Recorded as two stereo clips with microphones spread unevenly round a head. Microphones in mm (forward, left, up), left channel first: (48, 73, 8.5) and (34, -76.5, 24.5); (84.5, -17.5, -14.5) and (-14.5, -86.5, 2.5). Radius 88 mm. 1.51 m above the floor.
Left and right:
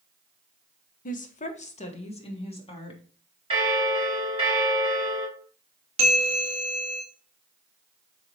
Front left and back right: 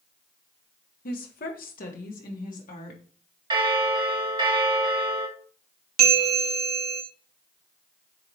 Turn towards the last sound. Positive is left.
turn(degrees=-155)